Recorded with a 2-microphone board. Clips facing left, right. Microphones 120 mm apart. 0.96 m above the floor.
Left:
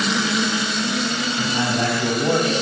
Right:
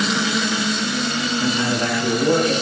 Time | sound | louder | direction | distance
1.4 | a man speaking | even | 85° left | 6.5 m